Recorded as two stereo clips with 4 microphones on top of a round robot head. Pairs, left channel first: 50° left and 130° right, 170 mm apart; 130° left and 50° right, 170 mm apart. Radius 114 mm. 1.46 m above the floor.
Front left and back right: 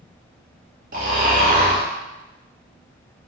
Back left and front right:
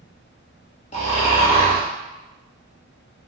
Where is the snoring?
175° right, 0.9 m.